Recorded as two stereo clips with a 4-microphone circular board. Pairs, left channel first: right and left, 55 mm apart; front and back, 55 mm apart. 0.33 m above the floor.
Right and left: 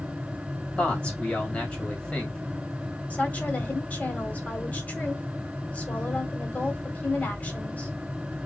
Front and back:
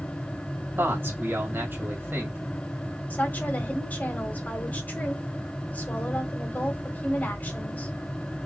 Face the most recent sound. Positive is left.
turn(degrees=-40)